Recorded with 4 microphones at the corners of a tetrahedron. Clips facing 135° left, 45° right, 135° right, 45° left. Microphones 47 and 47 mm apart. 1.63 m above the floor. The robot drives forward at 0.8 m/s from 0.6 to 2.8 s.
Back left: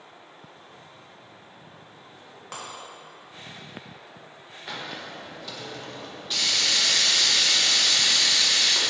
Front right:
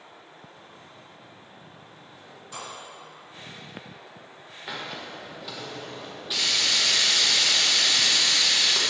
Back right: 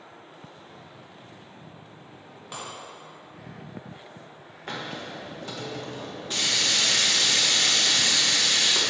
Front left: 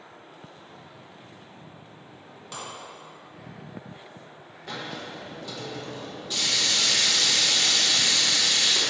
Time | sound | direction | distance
2.5 | breaking glass | 150° left | 1.7 m
4.7 | a hiss | 125° right | 0.9 m